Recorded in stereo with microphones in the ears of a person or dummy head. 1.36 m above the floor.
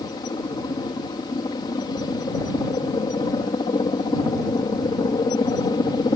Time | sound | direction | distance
0.0 | a helicopter | 25° left (ahead or behind) | ?